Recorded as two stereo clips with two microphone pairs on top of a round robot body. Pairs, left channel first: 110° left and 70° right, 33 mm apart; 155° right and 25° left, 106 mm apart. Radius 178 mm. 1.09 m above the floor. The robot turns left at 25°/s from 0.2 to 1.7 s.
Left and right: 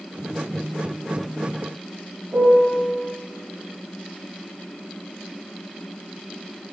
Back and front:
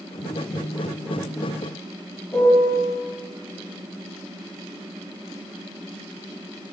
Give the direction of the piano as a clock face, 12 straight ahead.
3 o'clock.